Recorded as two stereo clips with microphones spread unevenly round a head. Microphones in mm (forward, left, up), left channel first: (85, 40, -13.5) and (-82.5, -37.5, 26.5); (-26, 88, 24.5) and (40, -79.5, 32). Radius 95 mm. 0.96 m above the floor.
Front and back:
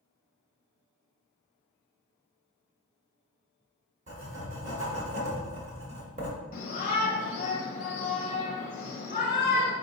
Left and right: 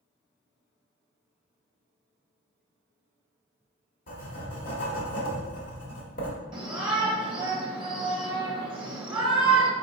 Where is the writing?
160° left, 1.3 m.